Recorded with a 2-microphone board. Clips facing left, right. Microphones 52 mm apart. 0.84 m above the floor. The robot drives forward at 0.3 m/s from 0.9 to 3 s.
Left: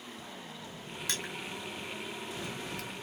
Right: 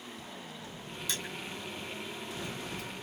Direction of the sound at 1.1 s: 60° left (ahead or behind).